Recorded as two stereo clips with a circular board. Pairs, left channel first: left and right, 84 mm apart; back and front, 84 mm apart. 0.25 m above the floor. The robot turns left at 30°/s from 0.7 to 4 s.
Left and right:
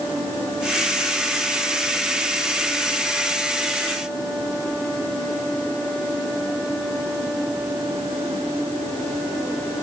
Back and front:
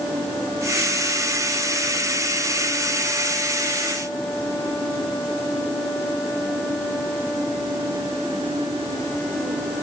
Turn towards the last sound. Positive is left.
No sound to turn to.